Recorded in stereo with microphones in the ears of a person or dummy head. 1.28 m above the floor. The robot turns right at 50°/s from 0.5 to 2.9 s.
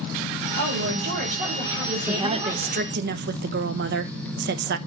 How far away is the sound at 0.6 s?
About 5 m.